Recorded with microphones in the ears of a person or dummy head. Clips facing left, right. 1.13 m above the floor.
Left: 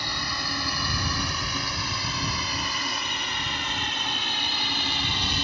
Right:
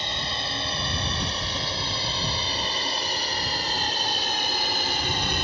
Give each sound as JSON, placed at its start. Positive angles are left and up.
{"t": 0.0, "sound": "a drone", "side_deg": -20}